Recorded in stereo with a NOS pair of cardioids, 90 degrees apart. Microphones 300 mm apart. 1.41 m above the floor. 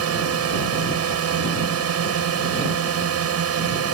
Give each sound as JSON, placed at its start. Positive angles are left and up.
{"t": 0.0, "sound": "a drone", "azimuth_deg": -55}